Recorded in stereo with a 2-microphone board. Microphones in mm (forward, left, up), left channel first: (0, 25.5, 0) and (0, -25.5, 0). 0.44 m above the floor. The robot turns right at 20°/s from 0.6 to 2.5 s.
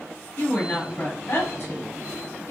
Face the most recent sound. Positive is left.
turn(degrees=60)  # may be behind; listen again after turning